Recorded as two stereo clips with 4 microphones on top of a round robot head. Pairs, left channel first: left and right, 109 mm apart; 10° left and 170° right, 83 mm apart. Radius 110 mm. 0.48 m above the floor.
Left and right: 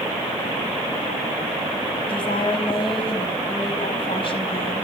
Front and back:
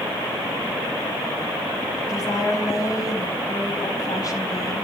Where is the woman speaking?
55° left, 4 m.